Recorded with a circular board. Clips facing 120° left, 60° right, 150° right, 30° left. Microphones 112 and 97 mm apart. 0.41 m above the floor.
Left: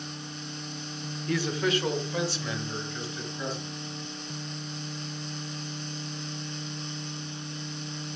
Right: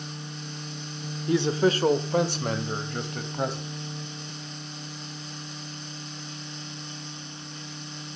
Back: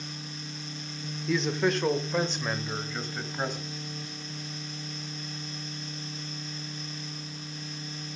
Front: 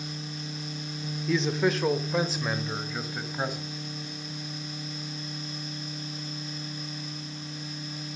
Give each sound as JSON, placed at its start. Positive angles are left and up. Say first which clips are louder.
{"t": 1.3, "sound": "a man speaking", "louder": "right 5 dB, front 1 dB", "azimuth_deg": -60, "distance_m": 1.0}